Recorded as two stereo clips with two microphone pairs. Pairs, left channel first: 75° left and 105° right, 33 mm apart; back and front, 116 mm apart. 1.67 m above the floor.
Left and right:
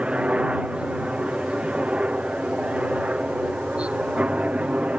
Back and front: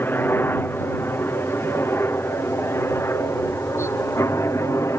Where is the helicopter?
120° right; by 5.0 s 130° right.